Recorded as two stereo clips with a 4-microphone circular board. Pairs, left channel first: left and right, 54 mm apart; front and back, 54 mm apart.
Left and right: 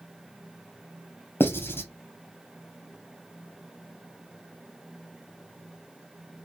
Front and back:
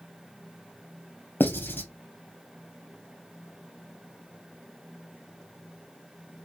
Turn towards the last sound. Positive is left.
turn(degrees=50)